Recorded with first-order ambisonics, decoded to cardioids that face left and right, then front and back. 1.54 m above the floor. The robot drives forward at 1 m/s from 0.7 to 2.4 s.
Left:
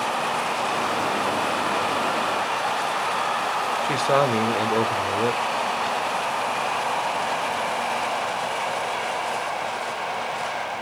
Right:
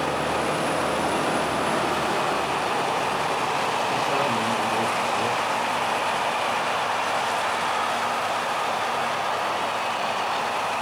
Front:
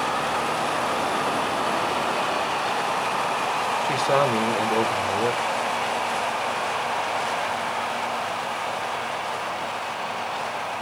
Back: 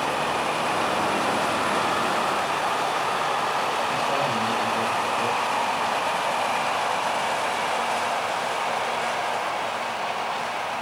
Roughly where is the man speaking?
Ahead left.